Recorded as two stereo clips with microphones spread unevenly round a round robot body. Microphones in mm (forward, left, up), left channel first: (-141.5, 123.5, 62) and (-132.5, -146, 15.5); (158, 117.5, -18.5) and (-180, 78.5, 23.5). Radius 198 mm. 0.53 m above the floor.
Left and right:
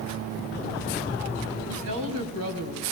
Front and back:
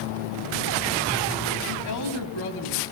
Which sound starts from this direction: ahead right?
A woman speaking, at 1.7 s.